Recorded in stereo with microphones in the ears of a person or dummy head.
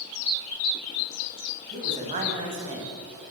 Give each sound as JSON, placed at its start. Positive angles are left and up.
{"t": 1.7, "sound": "a man speaking", "side_deg": -45, "distance_m": 9.0}